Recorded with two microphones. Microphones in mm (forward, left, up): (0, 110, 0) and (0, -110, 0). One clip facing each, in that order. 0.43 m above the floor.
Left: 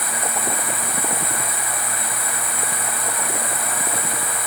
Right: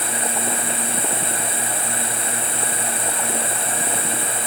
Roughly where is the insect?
Right.